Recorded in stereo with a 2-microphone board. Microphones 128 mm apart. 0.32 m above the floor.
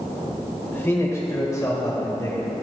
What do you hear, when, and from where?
0.7 s a man speaking: 20° left (ahead or behind), 1.3 m; by 2.5 s 30° left (ahead or behind), 1.5 m